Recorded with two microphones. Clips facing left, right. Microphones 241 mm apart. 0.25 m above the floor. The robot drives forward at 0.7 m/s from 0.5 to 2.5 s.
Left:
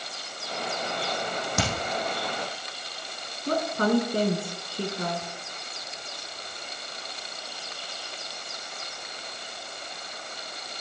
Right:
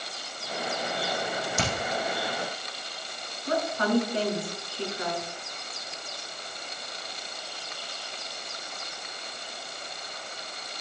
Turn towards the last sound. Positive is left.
turn(degrees=50)  # may be behind; listen again after turning